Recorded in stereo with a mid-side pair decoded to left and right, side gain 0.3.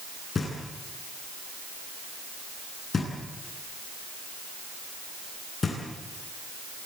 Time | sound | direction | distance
0.3 | knocking | 50° left | 10 m